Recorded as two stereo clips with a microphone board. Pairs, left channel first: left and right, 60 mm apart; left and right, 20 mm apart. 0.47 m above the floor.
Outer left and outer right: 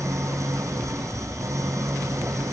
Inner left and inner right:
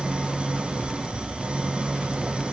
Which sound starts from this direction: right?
An engine running, at 0.0 s.